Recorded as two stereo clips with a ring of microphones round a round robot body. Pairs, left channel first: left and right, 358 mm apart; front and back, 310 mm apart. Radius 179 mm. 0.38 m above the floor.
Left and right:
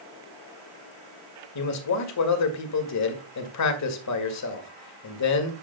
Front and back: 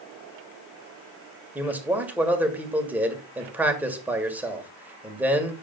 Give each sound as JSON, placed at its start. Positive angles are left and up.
{"t": 1.6, "sound": "a man speaking", "azimuth_deg": 100, "distance_m": 1.8}